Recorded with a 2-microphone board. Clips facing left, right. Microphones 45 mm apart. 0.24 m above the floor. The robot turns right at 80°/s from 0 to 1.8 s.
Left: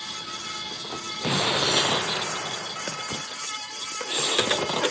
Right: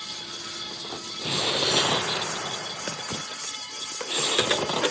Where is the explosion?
120° left; by 3.3 s 165° left.